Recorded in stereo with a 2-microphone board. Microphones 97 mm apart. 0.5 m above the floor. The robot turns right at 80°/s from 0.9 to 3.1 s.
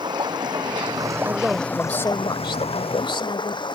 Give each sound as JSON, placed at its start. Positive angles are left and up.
{"t": 0.0, "sound": "running water", "azimuth_deg": -50}
{"t": 1.2, "sound": "a man speaking", "azimuth_deg": -35}